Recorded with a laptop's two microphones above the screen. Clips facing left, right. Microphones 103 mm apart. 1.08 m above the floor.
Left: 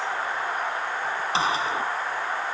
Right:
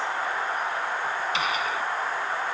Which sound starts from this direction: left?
A gunshot, at 1.3 s.